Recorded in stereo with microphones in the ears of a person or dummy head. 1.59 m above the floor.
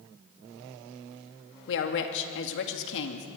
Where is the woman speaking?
70° left (ahead or behind), 2 m.